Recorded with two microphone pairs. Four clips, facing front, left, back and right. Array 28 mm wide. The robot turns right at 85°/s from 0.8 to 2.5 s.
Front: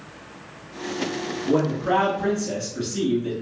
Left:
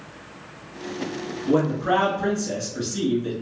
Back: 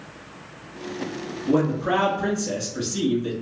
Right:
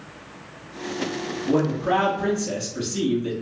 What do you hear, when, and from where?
1.5 s a man speaking: 80° left, 1.1 m; by 3.3 s 165° left, 1.1 m